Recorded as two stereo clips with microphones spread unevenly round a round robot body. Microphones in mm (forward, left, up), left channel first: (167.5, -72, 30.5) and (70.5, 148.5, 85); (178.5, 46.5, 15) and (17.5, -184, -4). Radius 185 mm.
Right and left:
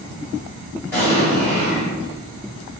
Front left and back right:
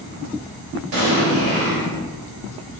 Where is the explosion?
140° right, 1.0 m.